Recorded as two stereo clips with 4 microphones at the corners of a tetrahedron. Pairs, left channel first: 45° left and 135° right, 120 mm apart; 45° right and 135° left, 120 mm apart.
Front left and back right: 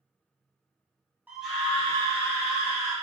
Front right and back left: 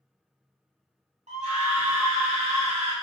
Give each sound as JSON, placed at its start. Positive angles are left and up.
{"t": 1.3, "sound": "a scream", "azimuth_deg": 150, "distance_m": 0.5}